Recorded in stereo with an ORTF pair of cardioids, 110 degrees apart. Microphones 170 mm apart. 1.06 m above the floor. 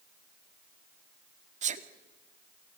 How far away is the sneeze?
About 2.0 m.